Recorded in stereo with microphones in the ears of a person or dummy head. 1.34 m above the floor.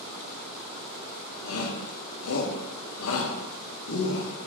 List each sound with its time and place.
1.4 s a shout: 80° left, 1.4 m